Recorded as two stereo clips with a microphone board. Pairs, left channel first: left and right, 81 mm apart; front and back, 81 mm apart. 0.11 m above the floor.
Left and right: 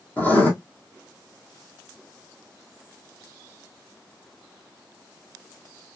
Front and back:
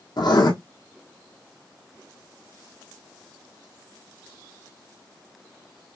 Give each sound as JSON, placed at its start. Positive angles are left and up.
{"t": 0.2, "sound": "writing", "azimuth_deg": 20, "distance_m": 1.9}